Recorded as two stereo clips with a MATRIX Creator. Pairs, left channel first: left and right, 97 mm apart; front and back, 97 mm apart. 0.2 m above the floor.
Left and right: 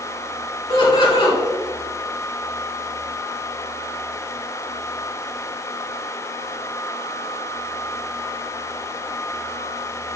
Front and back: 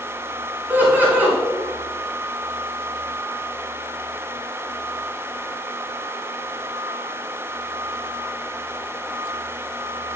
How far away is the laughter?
About 2.0 m.